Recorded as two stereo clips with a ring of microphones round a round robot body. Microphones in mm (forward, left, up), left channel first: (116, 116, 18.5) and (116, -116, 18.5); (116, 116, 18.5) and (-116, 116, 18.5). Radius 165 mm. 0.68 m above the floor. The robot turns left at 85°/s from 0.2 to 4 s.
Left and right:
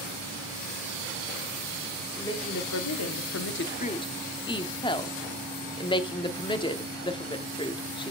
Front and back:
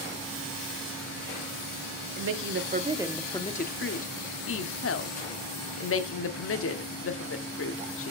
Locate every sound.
2.2 s a woman speaking: 175° left, 1.3 m; by 8.1 s 20° left, 1.3 m